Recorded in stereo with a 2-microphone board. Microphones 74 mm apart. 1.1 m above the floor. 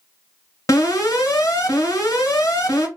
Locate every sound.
0.7 s an alarm: 40° left (ahead or behind), 2.0 m